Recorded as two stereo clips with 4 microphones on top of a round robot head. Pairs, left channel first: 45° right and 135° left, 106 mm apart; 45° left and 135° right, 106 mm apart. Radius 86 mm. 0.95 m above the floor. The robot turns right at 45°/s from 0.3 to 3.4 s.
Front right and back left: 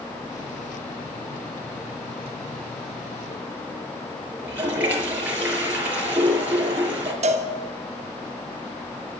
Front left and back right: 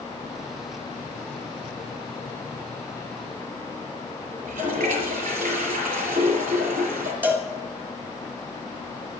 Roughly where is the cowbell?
Behind left.